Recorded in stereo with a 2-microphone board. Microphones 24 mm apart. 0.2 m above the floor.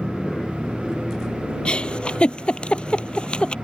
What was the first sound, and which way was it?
An aircraft, 25° left (ahead or behind).